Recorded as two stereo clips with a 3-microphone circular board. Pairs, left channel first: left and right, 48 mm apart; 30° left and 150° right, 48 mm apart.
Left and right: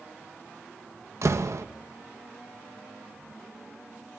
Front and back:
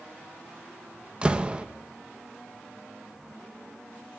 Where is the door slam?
80° right, 0.8 m.